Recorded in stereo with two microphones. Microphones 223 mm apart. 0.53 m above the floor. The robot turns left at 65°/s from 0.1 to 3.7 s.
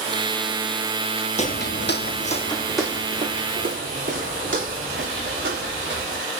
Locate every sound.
1.4 s footsteps: 30° left (ahead or behind), 0.5 m; by 6.2 s 60° right (ahead or behind), 6 m